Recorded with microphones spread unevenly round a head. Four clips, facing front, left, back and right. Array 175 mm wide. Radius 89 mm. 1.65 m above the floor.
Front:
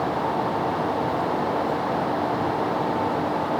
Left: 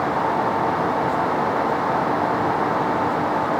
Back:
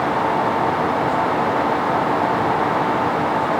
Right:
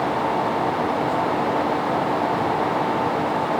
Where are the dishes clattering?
I don't hear dishes clattering.